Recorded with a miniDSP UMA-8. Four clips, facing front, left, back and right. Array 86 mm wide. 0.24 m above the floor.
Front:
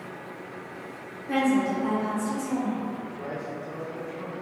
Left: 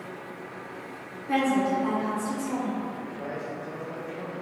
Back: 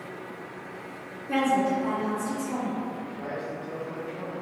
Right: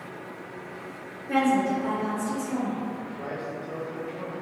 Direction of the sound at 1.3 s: 55° left.